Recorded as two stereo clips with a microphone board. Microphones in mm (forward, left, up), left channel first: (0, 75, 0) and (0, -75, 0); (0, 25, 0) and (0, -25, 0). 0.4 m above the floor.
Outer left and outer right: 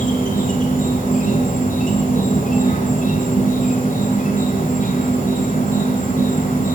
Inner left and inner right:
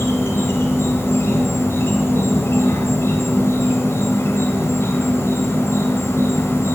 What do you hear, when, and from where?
0.0 s an insect: 60° left (ahead or behind), 1.8 m